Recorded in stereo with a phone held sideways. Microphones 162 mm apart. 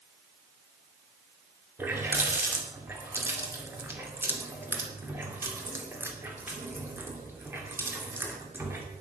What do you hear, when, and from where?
1.8 s a running tap: 15° right (ahead or behind), 2.5 m